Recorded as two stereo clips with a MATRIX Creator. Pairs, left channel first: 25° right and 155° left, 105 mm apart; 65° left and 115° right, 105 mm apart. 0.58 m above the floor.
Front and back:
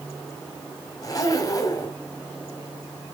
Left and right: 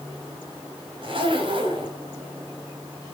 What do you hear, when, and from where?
1.0 s a zipper: 75° right, 2.5 m